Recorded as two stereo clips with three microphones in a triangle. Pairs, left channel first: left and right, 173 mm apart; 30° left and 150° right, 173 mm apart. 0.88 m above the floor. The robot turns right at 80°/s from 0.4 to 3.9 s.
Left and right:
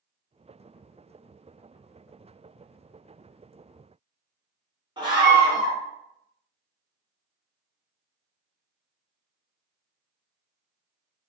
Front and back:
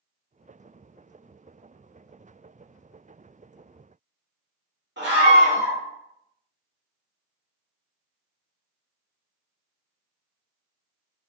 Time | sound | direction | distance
5.0 | a scream | 155° right | 2.0 m